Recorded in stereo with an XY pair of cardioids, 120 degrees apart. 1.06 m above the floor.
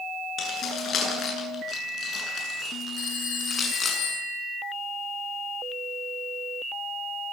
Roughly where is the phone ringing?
Ahead left.